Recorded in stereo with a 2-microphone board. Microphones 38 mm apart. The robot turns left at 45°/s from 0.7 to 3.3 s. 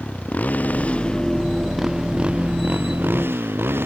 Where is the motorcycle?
40° left; by 3.9 s 75° right.